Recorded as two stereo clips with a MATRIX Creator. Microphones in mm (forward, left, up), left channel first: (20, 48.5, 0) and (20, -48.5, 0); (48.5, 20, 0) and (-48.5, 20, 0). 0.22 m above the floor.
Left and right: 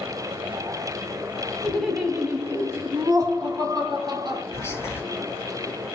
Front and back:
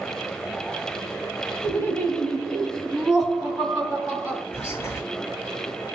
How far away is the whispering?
About 1.7 m.